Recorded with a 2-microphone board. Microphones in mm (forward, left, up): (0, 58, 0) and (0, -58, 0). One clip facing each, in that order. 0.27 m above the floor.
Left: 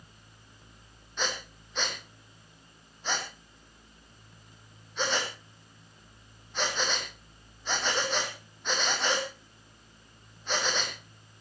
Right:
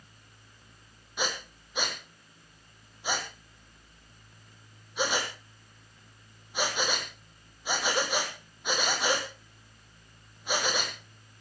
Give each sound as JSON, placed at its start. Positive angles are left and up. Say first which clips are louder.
{"t": 1.2, "sound": "breathing", "louder": "right 1 dB", "side_deg": -10, "distance_m": 3.0}